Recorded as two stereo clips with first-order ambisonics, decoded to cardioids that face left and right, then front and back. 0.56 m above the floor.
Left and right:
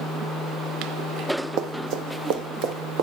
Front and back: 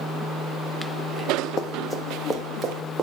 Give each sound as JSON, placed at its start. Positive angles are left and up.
{"t": 1.6, "sound": "running footsteps", "azimuth_deg": -60, "distance_m": 1.1}